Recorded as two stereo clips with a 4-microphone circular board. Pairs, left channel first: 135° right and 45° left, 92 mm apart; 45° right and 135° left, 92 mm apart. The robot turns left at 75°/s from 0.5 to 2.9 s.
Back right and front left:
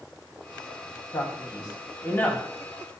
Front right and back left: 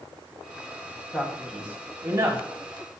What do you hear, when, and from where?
1.1 s a man speaking: 115° right, 1.8 m; by 2.4 s 150° left, 1.8 m